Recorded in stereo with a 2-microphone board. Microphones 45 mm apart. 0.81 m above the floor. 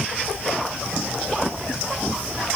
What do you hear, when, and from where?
Only background noise.